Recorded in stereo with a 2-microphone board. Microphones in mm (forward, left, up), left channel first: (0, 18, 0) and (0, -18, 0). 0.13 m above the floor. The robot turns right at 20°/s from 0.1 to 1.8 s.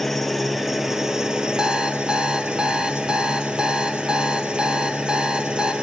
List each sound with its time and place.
0.0 s an engine running: 175° left, 1.6 m; by 5.8 s 150° right, 1.6 m
1.6 s an alarm clock: 20° right (ahead or behind), 1.5 m; by 5.7 s 25° right (ahead or behind), 1.5 m